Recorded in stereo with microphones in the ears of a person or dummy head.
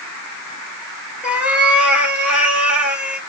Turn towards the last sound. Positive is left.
turn(degrees=-10)  # may be behind; listen again after turning